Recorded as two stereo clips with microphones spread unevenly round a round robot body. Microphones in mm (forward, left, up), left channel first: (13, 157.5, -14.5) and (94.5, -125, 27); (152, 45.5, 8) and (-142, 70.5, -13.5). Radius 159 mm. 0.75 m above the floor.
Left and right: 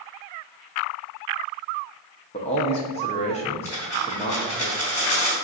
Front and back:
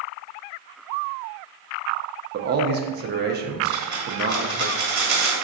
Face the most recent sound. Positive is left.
turn(degrees=-170)